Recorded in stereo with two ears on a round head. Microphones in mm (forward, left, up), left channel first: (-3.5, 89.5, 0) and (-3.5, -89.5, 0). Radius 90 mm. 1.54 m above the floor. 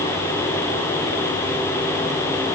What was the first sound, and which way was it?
Only background noise.